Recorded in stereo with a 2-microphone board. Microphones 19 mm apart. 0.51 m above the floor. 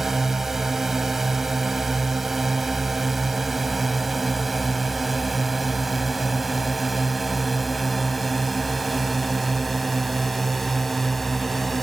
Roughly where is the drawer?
No drawer in this recording.